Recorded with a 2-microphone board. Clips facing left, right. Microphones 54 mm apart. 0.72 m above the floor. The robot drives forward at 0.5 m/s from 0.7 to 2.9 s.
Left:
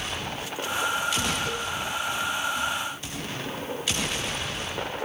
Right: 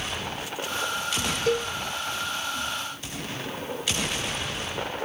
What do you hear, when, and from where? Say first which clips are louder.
1.5 s a cowbell: right 5 dB; 60° right (ahead or behind), 1.4 m; by 1.7 s 65° right (ahead or behind), 1.4 m